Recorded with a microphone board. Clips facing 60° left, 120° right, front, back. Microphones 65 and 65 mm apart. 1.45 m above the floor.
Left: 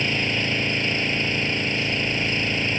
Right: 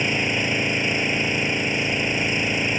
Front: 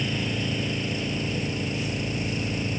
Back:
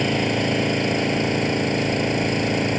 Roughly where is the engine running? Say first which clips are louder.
Right 1 dB, back 8 dB; behind.